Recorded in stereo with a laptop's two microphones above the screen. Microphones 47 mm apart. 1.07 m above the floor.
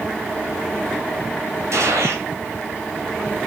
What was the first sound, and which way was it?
A gunshot, 75° right (ahead or behind).